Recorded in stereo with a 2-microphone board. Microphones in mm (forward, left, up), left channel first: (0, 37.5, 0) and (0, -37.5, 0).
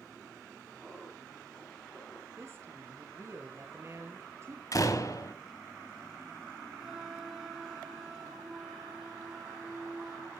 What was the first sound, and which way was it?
Laughter, centre (ahead or behind).